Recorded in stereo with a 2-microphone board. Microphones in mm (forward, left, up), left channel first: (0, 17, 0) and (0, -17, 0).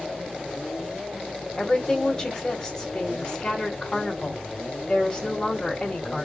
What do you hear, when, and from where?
1.6 s a woman speaking: 25° left (ahead or behind), 1.6 m